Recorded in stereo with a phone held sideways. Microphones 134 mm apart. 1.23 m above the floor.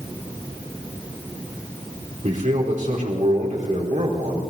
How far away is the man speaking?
About 4 m.